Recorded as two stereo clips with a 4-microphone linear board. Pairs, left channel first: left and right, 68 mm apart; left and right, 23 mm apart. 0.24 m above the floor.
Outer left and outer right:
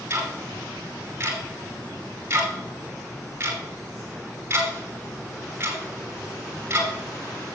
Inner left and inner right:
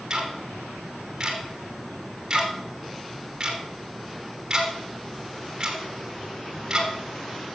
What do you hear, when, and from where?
0.1 s ticking: 35° right (ahead or behind), 2.5 m